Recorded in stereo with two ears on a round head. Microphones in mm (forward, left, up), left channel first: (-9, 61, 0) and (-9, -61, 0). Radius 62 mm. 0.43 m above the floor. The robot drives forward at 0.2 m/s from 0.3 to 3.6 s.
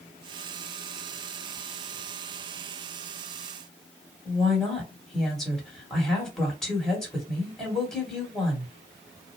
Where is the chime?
No chime in this recording.